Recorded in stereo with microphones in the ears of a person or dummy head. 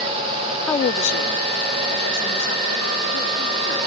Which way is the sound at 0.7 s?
10° left (ahead or behind).